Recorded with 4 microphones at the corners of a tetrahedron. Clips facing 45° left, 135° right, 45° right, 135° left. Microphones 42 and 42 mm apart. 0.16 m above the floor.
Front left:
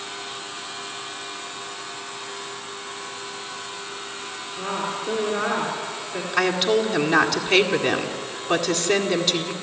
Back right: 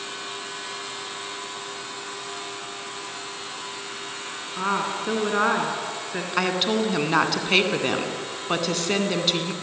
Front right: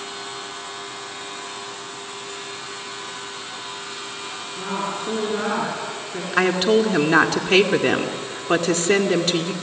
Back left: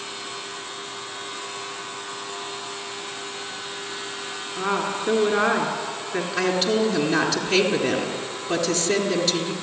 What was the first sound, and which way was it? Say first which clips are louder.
A woman speaking: back right 3 dB, back left 2 dB; 175° left.